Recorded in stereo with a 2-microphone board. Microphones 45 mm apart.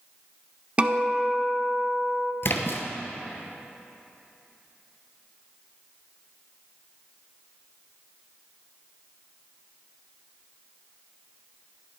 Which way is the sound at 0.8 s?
30° right (ahead or behind).